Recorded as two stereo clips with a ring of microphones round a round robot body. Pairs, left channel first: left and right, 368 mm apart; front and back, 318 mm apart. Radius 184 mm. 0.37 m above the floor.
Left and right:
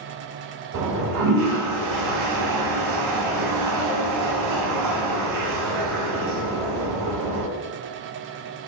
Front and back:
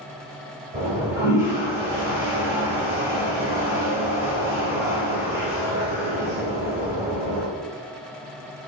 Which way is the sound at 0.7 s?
100° right.